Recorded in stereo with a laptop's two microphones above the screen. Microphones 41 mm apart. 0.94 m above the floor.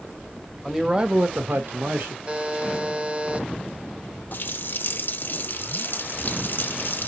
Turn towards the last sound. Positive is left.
turn(degrees=60)  # may be behind; listen again after turning